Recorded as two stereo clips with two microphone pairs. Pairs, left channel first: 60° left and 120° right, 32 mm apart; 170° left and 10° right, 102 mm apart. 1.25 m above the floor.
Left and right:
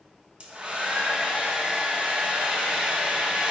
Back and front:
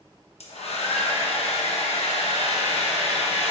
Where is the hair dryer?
Straight behind, 1.1 m.